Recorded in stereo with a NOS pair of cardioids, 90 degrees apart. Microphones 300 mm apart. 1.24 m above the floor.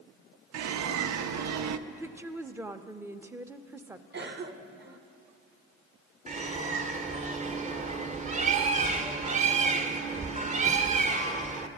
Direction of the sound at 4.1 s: 35° right.